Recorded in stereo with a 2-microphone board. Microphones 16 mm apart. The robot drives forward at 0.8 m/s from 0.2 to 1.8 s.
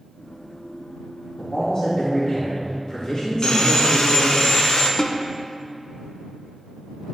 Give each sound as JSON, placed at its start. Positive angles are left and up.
{"t": 1.4, "sound": "a man speaking", "side_deg": 60, "distance_m": 2.0}
{"t": 3.4, "sound": "sawing", "side_deg": 60, "distance_m": 1.4}
{"t": 5.0, "sound": "a snare drum", "side_deg": 50, "distance_m": 0.6}